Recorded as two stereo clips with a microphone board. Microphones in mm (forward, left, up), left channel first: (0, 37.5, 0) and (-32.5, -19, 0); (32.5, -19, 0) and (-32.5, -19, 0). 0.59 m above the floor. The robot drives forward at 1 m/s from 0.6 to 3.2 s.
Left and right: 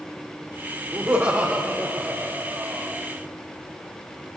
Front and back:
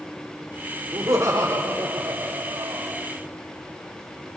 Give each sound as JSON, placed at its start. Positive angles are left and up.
{"t": 0.9, "sound": "laughter", "azimuth_deg": -165, "distance_m": 1.9}